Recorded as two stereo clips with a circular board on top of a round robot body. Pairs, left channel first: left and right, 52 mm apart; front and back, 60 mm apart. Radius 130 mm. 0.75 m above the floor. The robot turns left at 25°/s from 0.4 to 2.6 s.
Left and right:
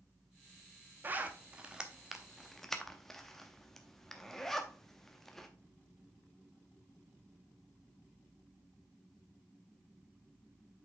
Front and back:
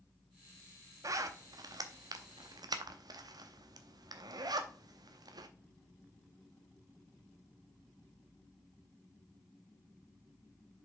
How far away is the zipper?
About 0.7 m.